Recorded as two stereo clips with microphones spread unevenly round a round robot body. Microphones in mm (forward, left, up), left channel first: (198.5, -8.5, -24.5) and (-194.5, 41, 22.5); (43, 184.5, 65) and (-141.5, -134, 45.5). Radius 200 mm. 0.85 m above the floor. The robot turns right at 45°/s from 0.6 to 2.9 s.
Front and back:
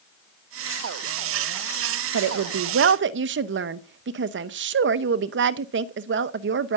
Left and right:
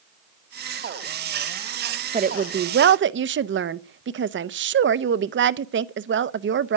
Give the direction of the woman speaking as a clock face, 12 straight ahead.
6 o'clock.